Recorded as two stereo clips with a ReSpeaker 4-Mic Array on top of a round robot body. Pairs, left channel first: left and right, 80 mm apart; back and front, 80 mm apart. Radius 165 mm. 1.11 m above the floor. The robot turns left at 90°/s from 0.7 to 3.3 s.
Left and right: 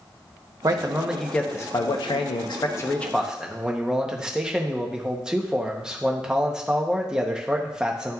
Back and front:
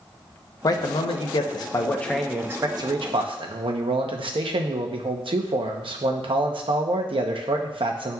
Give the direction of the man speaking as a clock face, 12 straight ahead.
5 o'clock.